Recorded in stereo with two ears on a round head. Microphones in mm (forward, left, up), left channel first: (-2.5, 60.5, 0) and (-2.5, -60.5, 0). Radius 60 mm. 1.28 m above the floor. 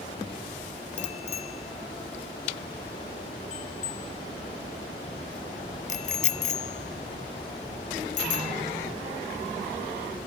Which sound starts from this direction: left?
A bicycle bell, at 1.0 s.